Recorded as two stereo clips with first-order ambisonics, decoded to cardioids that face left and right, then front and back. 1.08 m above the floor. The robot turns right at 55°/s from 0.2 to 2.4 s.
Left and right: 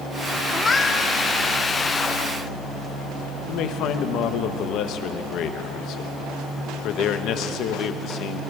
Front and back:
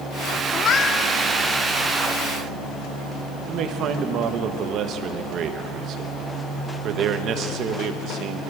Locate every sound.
0.5 s a cat meowing: 10° left, 0.6 m; by 1.1 s 45° left, 0.6 m
3.5 s a man speaking: 130° left, 1.0 m